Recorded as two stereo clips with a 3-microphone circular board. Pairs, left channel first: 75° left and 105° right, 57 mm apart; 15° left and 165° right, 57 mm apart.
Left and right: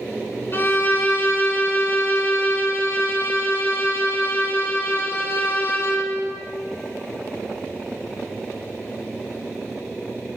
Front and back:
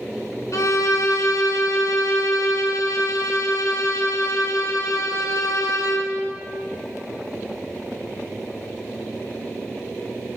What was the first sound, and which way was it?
A violin, 30° left.